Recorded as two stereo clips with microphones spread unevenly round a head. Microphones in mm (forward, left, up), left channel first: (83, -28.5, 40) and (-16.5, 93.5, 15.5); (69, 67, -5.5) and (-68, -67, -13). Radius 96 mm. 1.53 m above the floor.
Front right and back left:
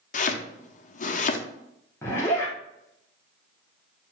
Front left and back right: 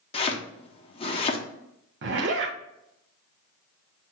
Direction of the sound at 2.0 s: 120° right.